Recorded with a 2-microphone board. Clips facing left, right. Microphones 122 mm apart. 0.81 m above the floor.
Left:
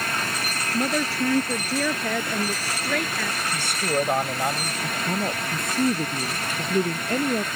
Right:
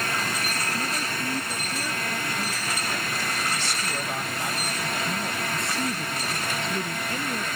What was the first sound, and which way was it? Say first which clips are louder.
A woman speaking: left 6 dB; 85° left.